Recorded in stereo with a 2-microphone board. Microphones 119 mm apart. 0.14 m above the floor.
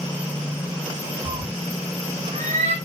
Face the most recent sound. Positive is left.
turn(degrees=-75)  # may be behind; listen again after turning